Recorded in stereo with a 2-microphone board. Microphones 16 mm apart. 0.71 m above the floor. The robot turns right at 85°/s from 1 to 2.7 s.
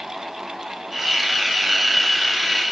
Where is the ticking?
No ticking in this recording.